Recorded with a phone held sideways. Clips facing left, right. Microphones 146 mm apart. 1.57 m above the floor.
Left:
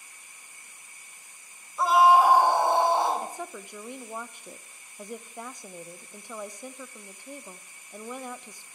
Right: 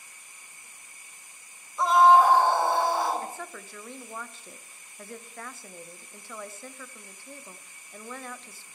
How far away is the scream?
About 1.9 m.